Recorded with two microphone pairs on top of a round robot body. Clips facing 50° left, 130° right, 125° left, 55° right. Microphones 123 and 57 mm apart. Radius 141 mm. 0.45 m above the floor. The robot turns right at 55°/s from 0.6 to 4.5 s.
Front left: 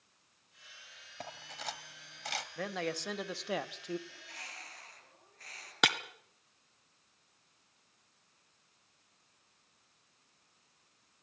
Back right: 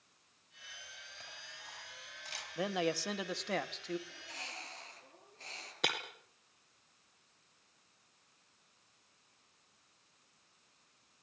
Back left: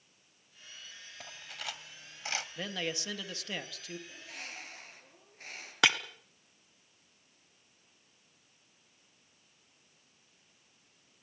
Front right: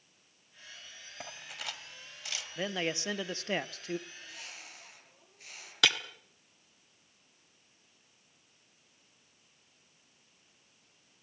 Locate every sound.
1.2 s cutlery clinking: 10° left, 1.8 m; by 2.5 s 80° left, 1.8 m
2.6 s a man speaking: 115° right, 1.6 m; by 4.0 s 35° right, 1.6 m
4.1 s a bird: 145° left, 8.5 m; by 5.7 s 170° left, 8.5 m
5.8 s breaking glass: 60° left, 1.6 m